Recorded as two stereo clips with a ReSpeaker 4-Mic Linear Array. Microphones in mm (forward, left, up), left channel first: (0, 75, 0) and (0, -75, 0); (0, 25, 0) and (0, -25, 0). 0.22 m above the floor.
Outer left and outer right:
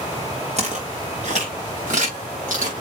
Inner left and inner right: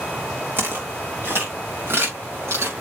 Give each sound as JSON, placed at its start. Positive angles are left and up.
{"t": 0.6, "sound": "footsteps", "side_deg": -50, "distance_m": 5.5}